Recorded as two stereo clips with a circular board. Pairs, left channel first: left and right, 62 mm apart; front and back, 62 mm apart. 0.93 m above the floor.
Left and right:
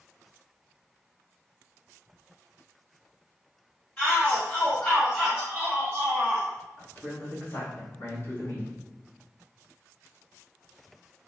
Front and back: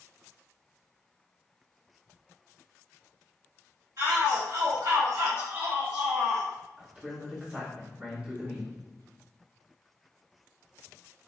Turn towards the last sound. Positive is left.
turn(degrees=120)